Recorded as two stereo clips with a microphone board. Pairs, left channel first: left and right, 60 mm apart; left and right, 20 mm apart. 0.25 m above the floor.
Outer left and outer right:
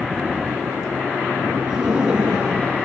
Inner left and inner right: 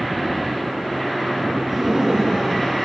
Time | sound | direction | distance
1.7 | laughter | 15° right (ahead or behind) | 3 m